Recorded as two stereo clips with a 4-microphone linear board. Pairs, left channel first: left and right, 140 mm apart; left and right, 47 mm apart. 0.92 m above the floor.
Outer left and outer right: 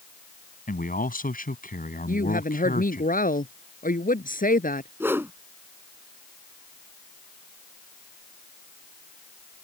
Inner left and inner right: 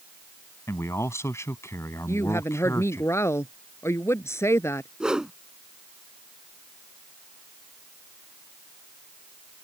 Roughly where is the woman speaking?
Left.